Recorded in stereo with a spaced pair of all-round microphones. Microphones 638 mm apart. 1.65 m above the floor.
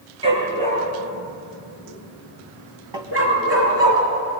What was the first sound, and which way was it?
A dog barking, 10° right (ahead or behind).